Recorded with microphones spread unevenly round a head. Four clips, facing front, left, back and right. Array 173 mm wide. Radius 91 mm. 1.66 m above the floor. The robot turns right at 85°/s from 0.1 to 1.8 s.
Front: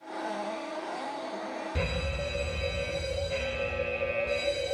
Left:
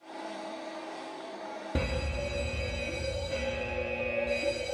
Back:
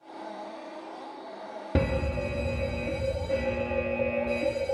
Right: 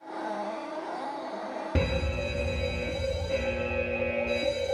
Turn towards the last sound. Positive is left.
turn(degrees=-170)